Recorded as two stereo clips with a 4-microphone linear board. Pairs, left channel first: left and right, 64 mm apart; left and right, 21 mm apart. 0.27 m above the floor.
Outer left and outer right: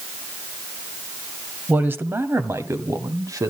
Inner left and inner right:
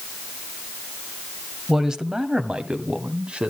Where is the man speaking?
25° right (ahead or behind), 1.2 m; by 3.5 s 55° right (ahead or behind), 1.8 m.